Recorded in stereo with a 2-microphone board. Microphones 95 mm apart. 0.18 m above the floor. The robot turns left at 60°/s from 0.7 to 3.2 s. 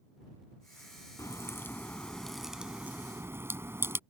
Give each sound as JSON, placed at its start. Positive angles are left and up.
{"t": 1.2, "sound": "a crack", "azimuth_deg": 70}